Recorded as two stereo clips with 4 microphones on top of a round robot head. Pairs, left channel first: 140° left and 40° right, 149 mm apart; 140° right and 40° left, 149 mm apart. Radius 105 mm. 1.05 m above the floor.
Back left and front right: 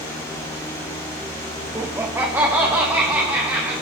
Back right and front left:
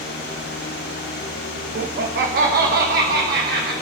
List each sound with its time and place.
1.8 s laughter: 30° left, 0.7 m; by 3.7 s 35° left, 2.5 m